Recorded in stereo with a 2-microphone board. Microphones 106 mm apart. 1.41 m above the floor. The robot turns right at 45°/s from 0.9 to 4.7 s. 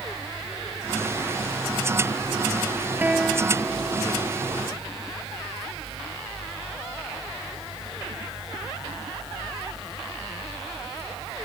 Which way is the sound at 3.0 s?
15° right.